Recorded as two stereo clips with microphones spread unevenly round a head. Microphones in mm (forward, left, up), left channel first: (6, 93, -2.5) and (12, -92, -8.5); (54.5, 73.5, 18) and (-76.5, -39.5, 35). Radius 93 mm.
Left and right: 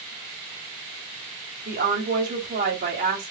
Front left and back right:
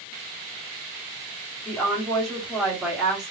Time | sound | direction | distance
1.6 | a woman speaking | 50° right | 3 m